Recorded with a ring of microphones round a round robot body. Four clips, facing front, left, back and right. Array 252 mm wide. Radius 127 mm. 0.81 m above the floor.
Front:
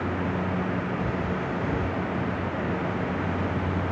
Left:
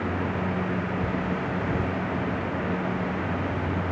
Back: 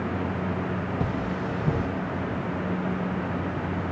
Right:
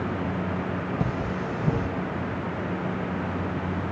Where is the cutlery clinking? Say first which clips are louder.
Left 1 dB, even; 130° right, 2.5 m.